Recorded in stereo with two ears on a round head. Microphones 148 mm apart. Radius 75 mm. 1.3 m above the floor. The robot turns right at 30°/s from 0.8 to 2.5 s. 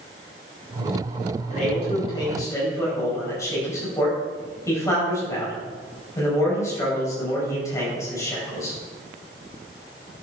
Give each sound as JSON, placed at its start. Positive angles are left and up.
{"t": 1.5, "sound": "a man speaking", "azimuth_deg": 130, "distance_m": 5.5}